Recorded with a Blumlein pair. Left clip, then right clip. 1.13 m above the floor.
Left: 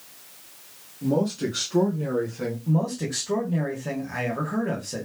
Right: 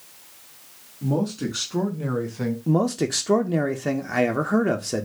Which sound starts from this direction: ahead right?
A man speaking, at 2.7 s.